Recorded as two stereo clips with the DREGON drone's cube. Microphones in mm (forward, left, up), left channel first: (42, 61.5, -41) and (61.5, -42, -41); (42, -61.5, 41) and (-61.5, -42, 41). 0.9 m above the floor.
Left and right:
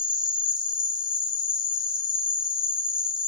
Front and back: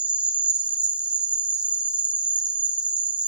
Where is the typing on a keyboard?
I don't hear typing on a keyboard.